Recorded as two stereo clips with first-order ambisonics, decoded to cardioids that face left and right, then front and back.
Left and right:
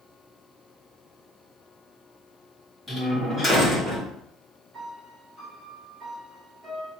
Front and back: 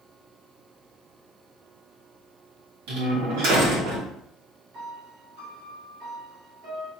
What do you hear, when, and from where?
2.9 s a door slam: 170° left, 2.5 m
4.7 s a piano: 165° right, 2.5 m